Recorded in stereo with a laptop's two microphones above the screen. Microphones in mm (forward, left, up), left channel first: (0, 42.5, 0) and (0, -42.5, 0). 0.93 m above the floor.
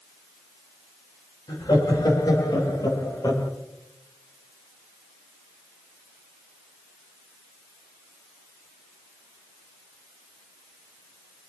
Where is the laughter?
55° left (ahead or behind), 6 m; by 3.5 s 45° left (ahead or behind), 3.5 m.